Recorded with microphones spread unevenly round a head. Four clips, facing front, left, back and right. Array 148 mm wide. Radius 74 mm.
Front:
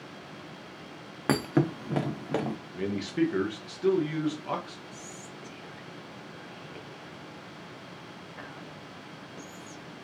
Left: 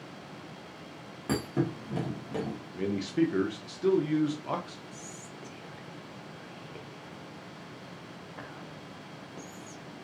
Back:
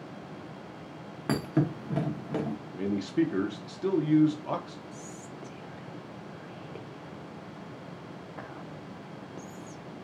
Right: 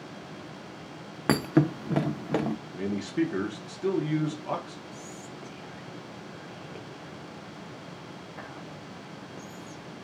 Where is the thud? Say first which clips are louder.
Right 7 dB, front 2 dB; 50° right, 0.6 m.